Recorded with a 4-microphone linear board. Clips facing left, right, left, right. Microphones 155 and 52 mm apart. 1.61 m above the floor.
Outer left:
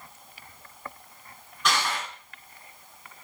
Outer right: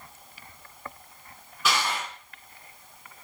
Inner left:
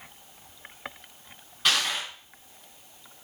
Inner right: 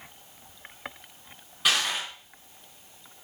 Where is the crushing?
5° right (ahead or behind), 5 m.